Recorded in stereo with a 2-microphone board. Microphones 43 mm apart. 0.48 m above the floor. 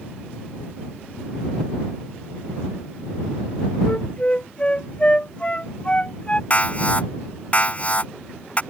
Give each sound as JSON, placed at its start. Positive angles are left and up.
{"t": 3.9, "sound": "a flute", "side_deg": 25}
{"t": 6.5, "sound": "an alarm", "side_deg": 30}